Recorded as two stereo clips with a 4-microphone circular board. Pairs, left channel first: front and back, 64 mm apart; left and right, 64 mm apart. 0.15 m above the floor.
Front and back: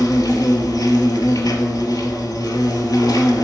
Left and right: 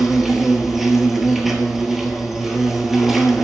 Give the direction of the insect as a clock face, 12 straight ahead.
12 o'clock.